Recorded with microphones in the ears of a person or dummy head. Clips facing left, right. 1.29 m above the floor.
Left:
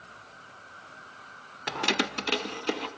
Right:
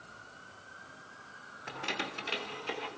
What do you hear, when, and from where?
1.7 s keys jangling: 75° left (ahead or behind), 0.7 m; by 2.9 s 60° left (ahead or behind), 1.7 m